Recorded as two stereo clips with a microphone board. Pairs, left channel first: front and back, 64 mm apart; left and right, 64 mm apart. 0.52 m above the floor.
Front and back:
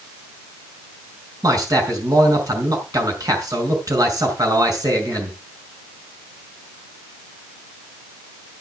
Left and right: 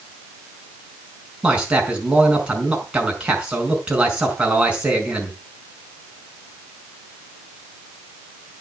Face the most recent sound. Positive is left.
turn(degrees=-165)